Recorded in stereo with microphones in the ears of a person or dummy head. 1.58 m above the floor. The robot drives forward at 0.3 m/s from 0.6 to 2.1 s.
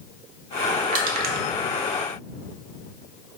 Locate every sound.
0.9 s crushing: 40° right (ahead or behind), 0.6 m; by 1.4 s 50° right (ahead or behind), 0.5 m